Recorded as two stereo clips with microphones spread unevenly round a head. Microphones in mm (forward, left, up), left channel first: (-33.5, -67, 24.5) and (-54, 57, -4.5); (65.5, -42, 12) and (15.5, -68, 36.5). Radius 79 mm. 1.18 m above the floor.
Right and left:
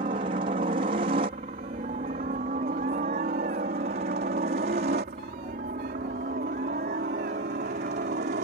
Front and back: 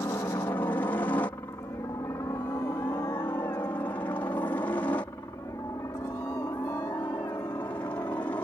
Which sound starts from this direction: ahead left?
A helicopter, at 0.0 s.